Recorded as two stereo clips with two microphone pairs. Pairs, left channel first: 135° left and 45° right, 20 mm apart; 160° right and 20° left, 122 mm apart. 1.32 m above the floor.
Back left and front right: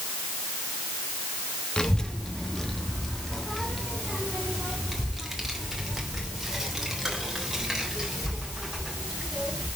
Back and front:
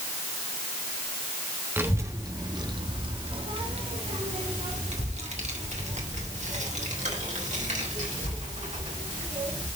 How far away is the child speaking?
About 1.2 m.